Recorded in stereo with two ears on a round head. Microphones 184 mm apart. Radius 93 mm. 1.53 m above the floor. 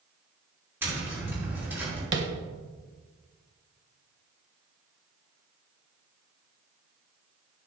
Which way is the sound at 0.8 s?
10° right (ahead or behind).